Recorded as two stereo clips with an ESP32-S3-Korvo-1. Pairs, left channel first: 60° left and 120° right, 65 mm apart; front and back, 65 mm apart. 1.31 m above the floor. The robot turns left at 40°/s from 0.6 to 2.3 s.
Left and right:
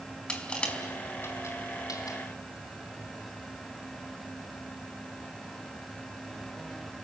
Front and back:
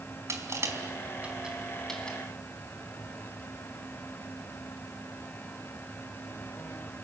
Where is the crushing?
135° left, 4 m; by 2.2 s 70° left, 4 m.